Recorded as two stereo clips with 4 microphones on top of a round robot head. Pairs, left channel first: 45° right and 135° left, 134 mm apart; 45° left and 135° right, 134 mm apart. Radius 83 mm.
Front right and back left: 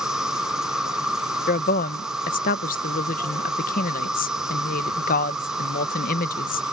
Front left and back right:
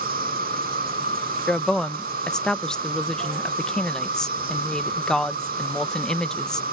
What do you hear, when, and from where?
0.0 s an insect: 140° right
1.5 s a woman speaking: 40° right